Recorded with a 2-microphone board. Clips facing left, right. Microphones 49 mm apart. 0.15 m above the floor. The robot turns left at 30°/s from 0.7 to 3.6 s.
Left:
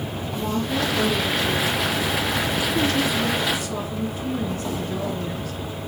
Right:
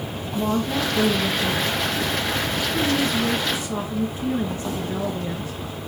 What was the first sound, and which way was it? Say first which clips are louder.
A woman speaking: right 2 dB; 60° right.